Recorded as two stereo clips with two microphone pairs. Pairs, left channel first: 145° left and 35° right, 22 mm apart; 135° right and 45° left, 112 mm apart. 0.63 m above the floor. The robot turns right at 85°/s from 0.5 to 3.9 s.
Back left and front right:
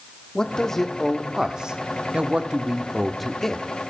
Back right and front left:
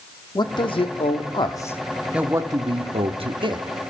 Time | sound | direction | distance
0.3 | a man speaking | 175° right | 1.2 m